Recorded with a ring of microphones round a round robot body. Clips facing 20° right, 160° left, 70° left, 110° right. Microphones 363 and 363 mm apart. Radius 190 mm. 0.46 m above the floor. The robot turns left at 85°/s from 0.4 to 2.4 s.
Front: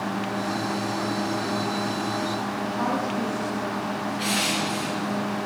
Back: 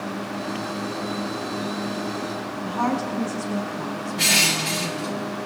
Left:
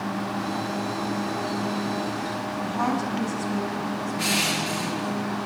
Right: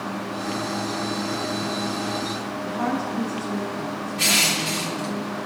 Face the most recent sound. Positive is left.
turn(degrees=180)